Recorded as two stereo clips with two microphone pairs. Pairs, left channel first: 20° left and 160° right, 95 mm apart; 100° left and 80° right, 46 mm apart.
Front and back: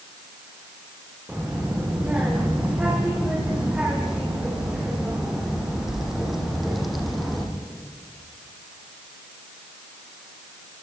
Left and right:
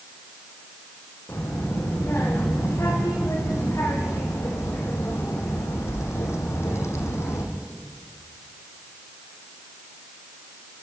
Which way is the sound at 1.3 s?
125° left.